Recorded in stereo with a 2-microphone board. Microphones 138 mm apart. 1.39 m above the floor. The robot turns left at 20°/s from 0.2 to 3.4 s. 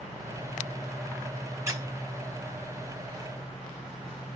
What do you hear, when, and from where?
1.7 s a squeak: 20° right (ahead or behind), 1.3 m; by 1.9 s 15° right (ahead or behind), 1.3 m